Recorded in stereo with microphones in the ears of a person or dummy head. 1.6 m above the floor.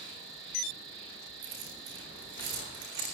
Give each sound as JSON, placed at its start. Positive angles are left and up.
{"t": 0.0, "sound": "an insect", "side_deg": -60, "distance_m": 1.4}
{"t": 1.4, "sound": "keys jangling", "side_deg": -60, "distance_m": 3.5}